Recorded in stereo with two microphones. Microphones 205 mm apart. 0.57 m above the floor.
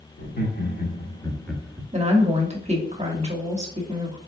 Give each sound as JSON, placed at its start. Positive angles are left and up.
{"t": 0.2, "sound": "laughter", "side_deg": 55, "distance_m": 1.1}
{"t": 1.9, "sound": "a woman speaking", "side_deg": -35, "distance_m": 0.8}